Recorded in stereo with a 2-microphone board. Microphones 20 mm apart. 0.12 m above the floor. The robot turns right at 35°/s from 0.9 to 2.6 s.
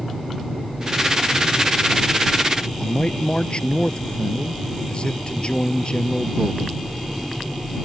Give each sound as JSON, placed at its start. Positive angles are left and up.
{"t": 2.8, "sound": "a man speaking", "side_deg": 50}